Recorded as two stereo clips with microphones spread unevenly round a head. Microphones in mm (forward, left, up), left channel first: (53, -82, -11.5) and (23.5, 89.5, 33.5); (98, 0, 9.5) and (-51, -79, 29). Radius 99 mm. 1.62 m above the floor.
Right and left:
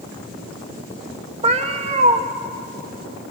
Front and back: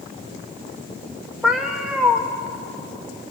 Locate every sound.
1.4 s a cat meowing: 130° left, 1.2 m